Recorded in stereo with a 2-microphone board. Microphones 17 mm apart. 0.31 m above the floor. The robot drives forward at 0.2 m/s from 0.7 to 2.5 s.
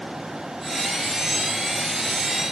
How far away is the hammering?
I don't hear hammering.